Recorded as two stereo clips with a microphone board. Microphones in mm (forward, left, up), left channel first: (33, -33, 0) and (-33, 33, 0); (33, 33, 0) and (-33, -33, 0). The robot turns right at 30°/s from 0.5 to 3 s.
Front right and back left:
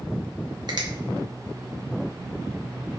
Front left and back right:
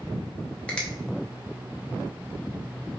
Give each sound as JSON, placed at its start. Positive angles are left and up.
{"t": 0.7, "sound": "a finger snap", "azimuth_deg": 120, "distance_m": 0.8}